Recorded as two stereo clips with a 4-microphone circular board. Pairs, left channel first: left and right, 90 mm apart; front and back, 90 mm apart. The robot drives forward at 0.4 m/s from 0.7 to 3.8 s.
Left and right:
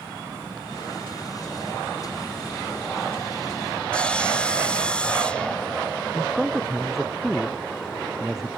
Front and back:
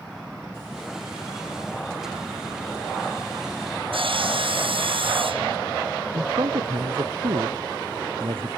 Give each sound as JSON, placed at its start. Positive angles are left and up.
{"t": 3.9, "sound": "sawing", "azimuth_deg": 170}
{"t": 6.1, "sound": "a man speaking", "azimuth_deg": -175}